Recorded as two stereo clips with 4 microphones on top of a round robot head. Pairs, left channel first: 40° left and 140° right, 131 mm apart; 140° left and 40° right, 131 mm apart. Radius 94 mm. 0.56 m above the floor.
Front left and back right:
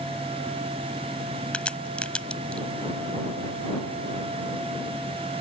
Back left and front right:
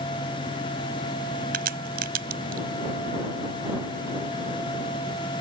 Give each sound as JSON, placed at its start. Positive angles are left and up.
{"t": 1.5, "sound": "a crack", "azimuth_deg": -45}